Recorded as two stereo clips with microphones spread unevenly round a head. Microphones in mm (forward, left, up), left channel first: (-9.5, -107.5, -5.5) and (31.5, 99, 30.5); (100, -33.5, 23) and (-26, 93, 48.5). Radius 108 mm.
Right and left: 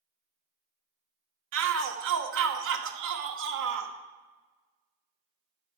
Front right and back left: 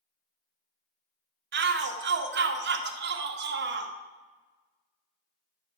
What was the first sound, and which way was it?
A shout, 115° left.